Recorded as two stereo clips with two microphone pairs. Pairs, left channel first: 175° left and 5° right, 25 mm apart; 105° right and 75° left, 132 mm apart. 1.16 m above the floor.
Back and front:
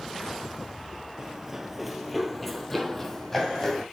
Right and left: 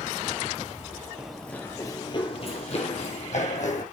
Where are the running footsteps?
5° left, 1.2 m; by 3.9 s 105° right, 3 m.